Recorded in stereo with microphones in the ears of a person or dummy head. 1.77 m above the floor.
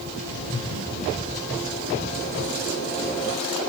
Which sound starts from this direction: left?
Laughter, at 0.2 s.